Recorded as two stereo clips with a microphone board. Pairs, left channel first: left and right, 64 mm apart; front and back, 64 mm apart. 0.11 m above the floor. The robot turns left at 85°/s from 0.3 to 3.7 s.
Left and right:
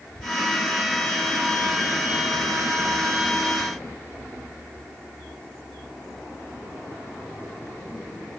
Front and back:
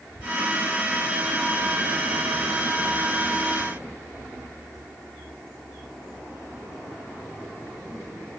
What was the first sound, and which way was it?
Only background noise.